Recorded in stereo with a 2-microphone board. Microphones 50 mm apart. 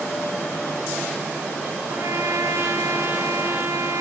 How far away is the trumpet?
About 4.5 m.